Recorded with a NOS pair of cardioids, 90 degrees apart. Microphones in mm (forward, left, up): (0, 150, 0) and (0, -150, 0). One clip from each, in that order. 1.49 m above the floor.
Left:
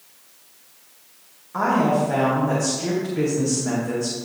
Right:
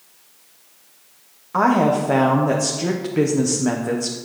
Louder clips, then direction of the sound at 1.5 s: Right 3 dB; 40° right.